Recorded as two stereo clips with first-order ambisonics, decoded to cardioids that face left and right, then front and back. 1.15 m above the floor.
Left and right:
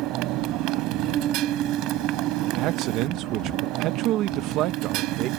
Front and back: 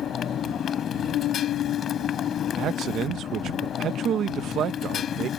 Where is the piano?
35° right.